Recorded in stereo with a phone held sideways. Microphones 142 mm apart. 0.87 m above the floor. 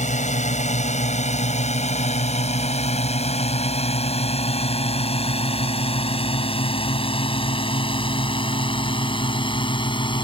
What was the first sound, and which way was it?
A drone, 55° left (ahead or behind).